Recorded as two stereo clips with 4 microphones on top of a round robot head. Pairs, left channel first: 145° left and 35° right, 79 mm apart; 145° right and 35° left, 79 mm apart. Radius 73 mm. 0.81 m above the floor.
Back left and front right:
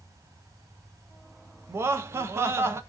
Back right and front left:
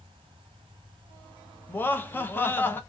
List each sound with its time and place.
1.7 s laughter: 85° right, 0.7 m